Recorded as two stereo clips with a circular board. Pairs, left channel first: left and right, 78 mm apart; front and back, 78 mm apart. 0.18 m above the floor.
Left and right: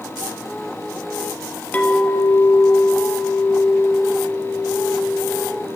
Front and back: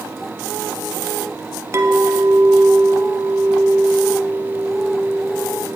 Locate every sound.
1.7 s a clink: 150° left, 1.0 m